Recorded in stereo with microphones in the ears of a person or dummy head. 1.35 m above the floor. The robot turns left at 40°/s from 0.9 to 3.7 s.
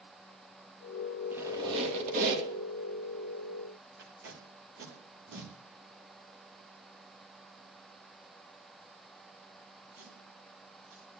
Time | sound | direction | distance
1.3 | a squeak | 15° right | 1.5 m
4.0 | tape being pulled | 65° right (ahead or behind) | 1.6 m